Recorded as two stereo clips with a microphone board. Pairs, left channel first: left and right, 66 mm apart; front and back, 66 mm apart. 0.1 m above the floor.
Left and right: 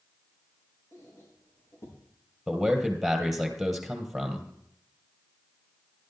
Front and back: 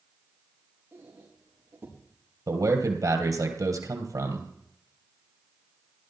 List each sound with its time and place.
0.9 s a squeak: 130° left, 5.5 m
2.5 s a man speaking: straight behind, 2.5 m